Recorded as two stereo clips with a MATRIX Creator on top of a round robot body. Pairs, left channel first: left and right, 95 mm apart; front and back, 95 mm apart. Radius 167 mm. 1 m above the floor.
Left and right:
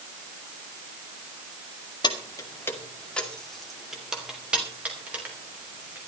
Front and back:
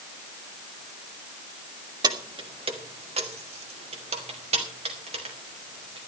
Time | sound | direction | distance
2.0 | keys jangling | 130° left | 1.6 m